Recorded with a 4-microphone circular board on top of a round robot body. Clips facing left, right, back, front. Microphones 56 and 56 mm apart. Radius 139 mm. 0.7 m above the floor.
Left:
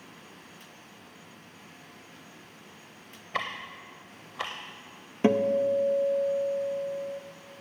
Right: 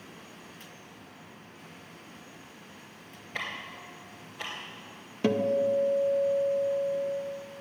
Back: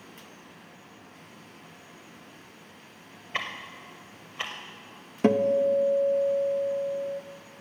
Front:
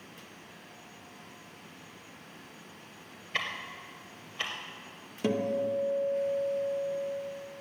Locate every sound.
3.3 s ticking: 105° left, 0.5 m
5.2 s a guitar: 150° left, 0.9 m